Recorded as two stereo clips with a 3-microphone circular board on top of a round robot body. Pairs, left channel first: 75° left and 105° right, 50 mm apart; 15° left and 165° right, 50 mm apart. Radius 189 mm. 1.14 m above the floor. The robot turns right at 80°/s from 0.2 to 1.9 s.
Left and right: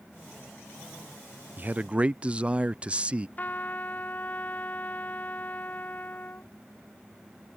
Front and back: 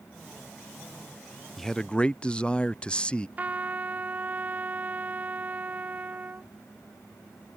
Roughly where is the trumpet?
Behind left.